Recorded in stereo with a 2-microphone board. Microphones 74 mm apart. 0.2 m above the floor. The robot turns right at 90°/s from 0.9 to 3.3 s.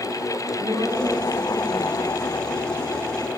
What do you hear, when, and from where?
0.6 s a woman speaking: 95° right, 5.5 m; by 2.9 s 85° left, 5.5 m